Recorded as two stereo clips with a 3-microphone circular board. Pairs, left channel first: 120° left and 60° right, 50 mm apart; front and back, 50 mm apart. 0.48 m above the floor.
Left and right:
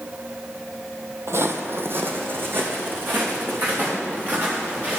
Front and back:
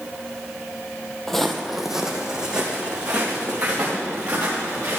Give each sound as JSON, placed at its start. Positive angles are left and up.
{"t": 1.3, "sound": "footsteps", "azimuth_deg": -80, "distance_m": 1.0}